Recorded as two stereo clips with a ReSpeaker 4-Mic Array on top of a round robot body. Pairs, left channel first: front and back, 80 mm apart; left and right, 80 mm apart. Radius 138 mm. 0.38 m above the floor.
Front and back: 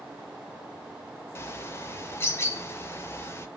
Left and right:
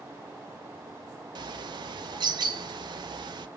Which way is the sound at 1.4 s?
60° right.